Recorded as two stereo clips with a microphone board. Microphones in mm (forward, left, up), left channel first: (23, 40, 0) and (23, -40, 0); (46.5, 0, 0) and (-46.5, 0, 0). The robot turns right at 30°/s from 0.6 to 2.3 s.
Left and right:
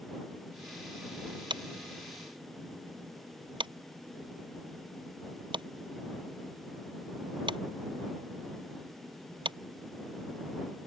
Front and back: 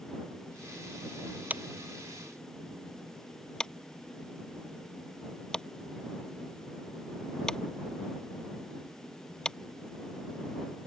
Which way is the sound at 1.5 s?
105° right.